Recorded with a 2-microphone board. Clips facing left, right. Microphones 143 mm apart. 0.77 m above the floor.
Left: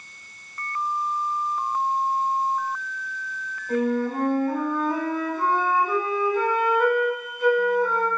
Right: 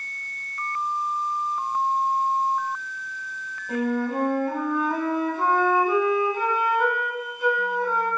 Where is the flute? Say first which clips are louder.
Left 2 dB; 10° right (ahead or behind), 0.8 m.